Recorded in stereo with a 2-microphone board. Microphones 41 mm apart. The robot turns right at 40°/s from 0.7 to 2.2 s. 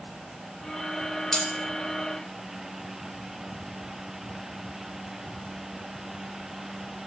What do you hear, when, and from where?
1.3 s cutlery clinking: 10° left (ahead or behind), 0.5 m; by 1.5 s 15° left (ahead or behind), 0.5 m